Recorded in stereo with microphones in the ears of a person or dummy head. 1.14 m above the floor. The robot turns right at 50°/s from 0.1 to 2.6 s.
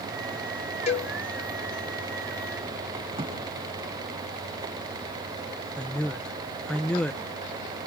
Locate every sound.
0.9 s a cowbell: 35° left (ahead or behind), 0.8 m; by 1.1 s 30° left (ahead or behind), 0.8 m
3.1 s a drawer: 30° right (ahead or behind), 7.5 m
5.8 s a man speaking: 10° left (ahead or behind), 0.6 m